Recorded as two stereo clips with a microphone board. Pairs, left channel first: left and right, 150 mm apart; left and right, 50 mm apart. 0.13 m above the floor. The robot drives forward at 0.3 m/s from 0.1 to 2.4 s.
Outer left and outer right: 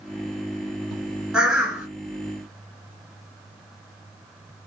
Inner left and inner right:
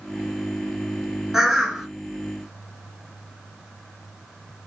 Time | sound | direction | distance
1.3 | a bird | 5° right (ahead or behind) | 1.0 m